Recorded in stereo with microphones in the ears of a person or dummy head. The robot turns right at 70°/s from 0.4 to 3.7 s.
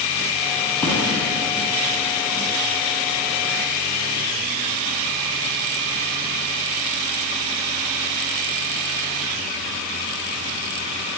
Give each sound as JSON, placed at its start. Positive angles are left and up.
{"t": 0.8, "sound": "a thud", "side_deg": 10, "distance_m": 6.0}